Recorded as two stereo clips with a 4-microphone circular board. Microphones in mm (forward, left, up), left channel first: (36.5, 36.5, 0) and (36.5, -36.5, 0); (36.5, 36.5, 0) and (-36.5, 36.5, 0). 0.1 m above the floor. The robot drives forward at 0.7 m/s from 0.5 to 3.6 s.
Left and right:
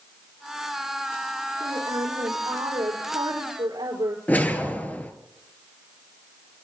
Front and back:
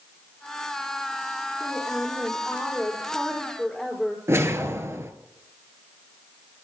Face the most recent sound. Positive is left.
turn(degrees=150)